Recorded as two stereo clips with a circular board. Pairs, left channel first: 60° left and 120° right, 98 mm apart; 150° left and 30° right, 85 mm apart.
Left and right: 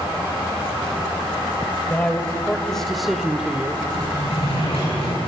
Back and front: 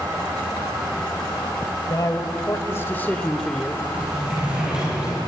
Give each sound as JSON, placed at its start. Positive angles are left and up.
{"t": 1.9, "sound": "a man speaking", "azimuth_deg": 125, "distance_m": 1.8}
{"t": 3.9, "sound": "a sliding door", "azimuth_deg": 50, "distance_m": 8.0}